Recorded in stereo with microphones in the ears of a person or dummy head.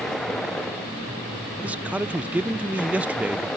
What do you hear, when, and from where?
0.0 s a vehicle: centre (ahead or behind)
1.6 s a man speaking: 10° right (ahead or behind)